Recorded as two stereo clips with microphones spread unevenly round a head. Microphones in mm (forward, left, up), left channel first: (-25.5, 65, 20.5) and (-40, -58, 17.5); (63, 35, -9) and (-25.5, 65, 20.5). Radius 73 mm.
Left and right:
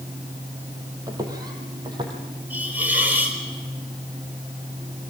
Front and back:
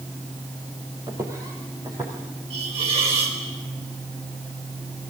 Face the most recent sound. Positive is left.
turn(degrees=-175)